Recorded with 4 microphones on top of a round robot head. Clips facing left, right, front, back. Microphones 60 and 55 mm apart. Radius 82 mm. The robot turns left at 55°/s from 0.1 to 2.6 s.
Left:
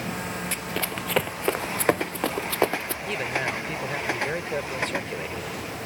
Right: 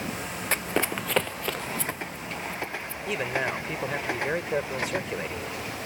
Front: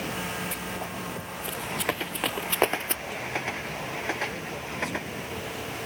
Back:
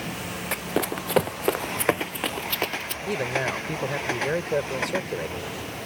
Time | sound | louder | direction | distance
0.5 | running footsteps | right 3 dB, back 7 dB | 135° right | ?
3.1 | a man speaking | right 1 dB, back 9 dB | 170° right | ?